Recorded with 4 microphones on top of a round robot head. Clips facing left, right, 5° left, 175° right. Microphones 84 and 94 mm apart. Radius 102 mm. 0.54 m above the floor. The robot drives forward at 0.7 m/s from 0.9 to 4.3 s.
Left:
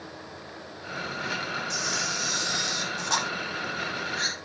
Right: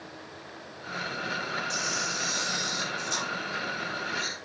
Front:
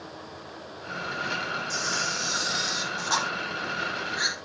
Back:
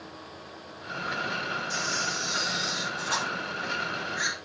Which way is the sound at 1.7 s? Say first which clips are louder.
Left 1 dB, front 1 dB; 55° left.